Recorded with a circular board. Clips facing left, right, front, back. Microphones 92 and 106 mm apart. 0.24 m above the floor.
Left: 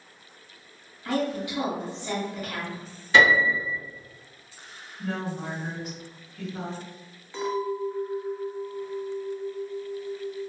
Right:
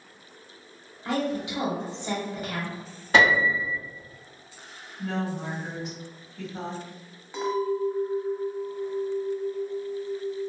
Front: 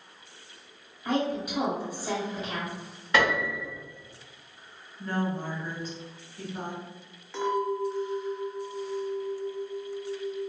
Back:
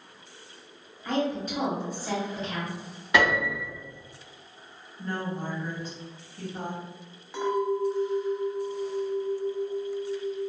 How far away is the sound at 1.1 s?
About 1.0 m.